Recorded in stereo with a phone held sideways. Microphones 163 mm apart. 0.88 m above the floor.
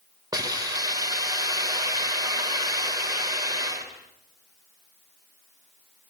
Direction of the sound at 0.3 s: 25° right (ahead or behind).